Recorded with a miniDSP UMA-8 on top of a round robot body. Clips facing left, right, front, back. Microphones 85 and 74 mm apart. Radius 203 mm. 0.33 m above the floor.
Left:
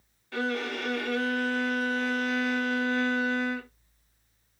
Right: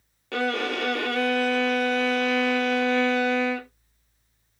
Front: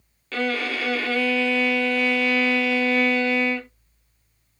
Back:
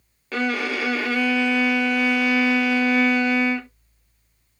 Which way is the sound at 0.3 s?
105° right.